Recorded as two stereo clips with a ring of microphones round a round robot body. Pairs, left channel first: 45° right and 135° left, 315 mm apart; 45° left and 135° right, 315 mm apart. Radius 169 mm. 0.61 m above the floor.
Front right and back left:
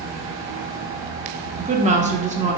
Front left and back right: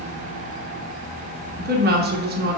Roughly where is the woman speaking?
Behind.